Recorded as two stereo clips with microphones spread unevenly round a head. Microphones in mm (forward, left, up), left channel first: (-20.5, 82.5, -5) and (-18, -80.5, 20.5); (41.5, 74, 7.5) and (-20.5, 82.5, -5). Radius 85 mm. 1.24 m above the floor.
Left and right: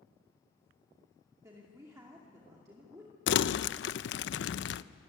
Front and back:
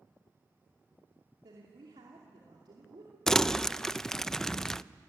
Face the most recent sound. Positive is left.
turn(degrees=70)